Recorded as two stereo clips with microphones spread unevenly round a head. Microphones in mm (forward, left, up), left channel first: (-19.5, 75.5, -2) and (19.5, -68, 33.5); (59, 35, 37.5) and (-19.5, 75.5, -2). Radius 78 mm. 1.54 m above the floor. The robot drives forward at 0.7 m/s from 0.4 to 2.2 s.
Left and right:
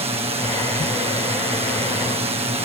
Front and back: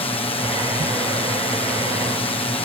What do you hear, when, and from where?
0.0 s a drone: 30° right